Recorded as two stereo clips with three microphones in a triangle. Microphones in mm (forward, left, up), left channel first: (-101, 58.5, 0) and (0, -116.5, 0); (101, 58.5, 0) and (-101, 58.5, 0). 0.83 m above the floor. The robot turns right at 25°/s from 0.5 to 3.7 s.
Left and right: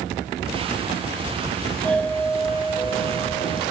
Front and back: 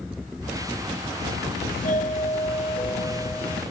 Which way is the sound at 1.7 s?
30° left.